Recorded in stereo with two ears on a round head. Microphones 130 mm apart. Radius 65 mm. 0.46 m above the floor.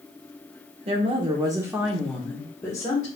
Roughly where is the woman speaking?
Right.